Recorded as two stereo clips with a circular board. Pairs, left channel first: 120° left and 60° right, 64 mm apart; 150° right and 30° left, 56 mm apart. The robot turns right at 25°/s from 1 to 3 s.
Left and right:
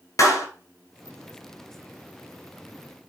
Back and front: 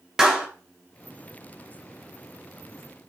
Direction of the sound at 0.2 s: 105° left.